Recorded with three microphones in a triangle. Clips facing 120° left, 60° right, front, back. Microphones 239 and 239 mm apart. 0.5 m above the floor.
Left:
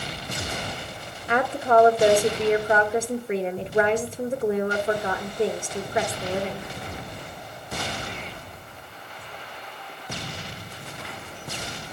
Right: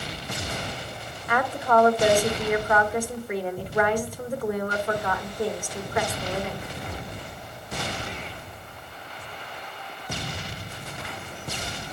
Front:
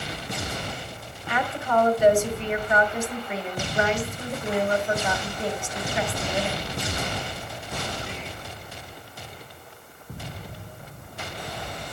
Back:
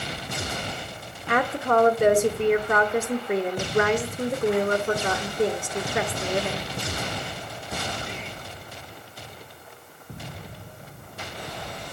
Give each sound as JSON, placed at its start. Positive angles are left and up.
{"t": 1.3, "sound": "a woman speaking", "azimuth_deg": 180, "distance_m": 1.1}